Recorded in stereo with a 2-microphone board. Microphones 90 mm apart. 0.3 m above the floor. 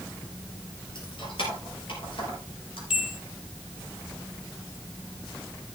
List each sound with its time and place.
0.9 s keys jangling: 65° left (ahead or behind), 4.5 m; by 2.8 s 75° left (ahead or behind), 5.5 m
2.9 s a bell: 10° right (ahead or behind), 2 m